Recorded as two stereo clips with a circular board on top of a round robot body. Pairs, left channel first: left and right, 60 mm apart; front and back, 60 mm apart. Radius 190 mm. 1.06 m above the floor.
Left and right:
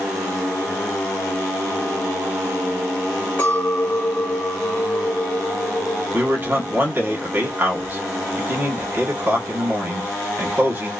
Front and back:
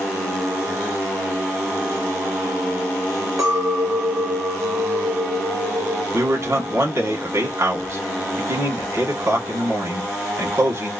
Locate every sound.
3.4 s a clink: 155° left, 1.0 m
6.1 s a man speaking: 145° right, 1.5 m